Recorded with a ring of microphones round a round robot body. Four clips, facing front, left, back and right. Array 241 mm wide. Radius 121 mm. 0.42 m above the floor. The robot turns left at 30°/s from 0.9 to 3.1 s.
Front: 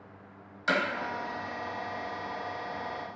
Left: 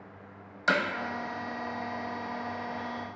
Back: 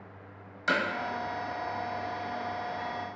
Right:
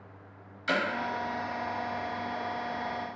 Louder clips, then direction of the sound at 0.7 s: Left 3 dB, even; 95° left.